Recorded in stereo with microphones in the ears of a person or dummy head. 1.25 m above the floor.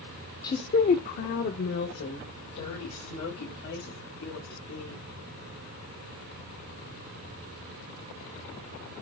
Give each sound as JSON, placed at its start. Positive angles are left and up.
{"t": 0.4, "sound": "a woman speaking", "side_deg": 25, "distance_m": 0.6}